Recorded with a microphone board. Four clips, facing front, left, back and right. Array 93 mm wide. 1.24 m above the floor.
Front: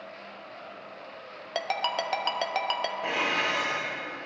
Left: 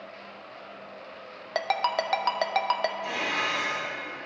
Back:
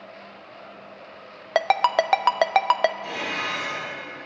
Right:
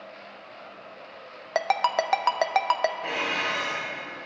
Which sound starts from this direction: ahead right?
Dishes clattering, at 3.0 s.